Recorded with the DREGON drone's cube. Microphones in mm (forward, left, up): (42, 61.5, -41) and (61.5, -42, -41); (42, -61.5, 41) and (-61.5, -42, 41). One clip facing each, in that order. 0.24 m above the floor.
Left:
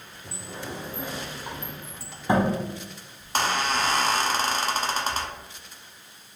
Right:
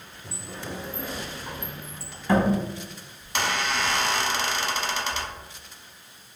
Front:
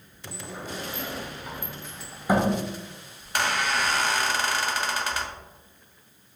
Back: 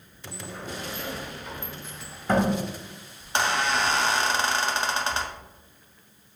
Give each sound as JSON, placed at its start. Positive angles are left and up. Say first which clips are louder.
{"t": 0.3, "sound": "a sliding door", "louder": "even, even", "azimuth_deg": 55, "distance_m": 0.5}
{"t": 3.2, "sound": "a squeak", "louder": "left 2 dB, back 1 dB", "azimuth_deg": 115, "distance_m": 0.5}